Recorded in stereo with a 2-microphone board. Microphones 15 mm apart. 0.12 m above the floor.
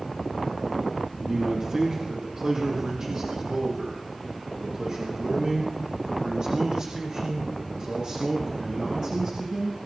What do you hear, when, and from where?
1.2 s a man speaking: 70° right (ahead or behind), 4.5 m; by 9.8 s 60° right (ahead or behind), 9 m